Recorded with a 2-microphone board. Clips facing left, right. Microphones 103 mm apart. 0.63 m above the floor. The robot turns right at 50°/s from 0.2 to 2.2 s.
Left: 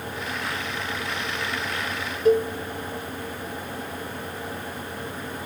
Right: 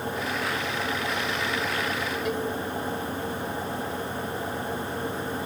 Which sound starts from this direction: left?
A cowbell, at 2.2 s.